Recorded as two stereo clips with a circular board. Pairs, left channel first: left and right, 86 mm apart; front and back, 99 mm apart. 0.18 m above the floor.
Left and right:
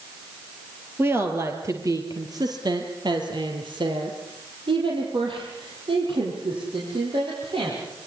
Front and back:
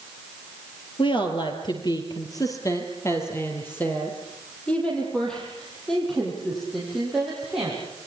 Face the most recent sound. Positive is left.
turn(degrees=-95)